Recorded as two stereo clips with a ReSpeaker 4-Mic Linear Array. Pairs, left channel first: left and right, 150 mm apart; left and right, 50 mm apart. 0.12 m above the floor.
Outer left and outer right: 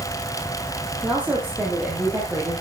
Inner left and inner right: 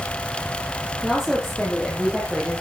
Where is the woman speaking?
10° right (ahead or behind), 5 m; by 2.6 s 15° right (ahead or behind), 5.5 m.